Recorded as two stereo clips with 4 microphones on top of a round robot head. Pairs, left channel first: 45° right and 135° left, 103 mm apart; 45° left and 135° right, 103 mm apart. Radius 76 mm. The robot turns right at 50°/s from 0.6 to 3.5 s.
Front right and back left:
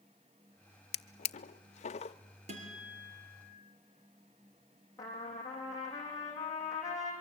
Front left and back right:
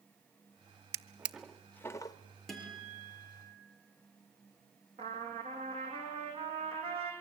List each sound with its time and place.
0.9 s a drawer: 70° right, 0.6 m; by 2.2 s 10° right, 0.6 m
2.5 s a guitar: 130° left, 5 m; by 3.5 s straight behind, 5 m
5.0 s a trumpet: 100° right, 5.5 m